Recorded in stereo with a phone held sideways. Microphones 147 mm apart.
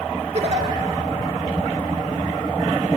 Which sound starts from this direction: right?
A giggle, at 0.3 s.